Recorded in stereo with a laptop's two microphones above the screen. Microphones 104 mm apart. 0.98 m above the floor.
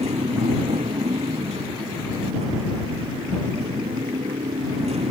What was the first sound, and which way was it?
A motorcycle, 90° right.